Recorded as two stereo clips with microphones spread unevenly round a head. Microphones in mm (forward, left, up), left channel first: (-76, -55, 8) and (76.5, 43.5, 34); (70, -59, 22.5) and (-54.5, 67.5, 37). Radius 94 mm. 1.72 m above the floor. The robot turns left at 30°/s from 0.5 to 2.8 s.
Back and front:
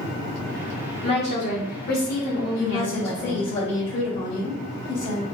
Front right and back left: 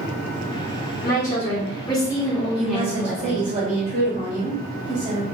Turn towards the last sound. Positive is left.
turn(degrees=-175)